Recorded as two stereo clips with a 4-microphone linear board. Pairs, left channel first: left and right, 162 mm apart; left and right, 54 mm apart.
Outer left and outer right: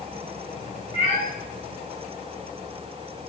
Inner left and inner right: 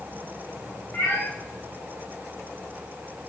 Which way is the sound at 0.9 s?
40° left (ahead or behind).